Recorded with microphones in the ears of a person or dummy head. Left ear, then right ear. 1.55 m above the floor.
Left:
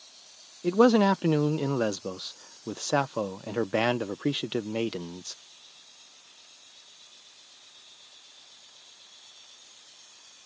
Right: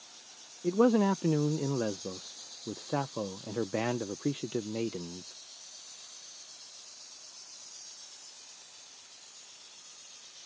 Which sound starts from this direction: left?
A man speaking, at 0.6 s.